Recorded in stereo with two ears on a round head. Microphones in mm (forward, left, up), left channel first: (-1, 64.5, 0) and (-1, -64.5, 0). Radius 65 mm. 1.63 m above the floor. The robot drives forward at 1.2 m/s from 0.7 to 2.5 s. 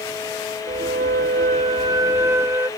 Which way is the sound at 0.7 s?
40° right (ahead or behind).